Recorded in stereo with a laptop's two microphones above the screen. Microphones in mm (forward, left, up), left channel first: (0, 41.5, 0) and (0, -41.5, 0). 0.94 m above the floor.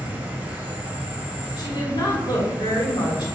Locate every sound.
0.0 s an insect: 20° right (ahead or behind), 1.7 m
1.6 s a woman speaking: 65° left (ahead or behind), 3 m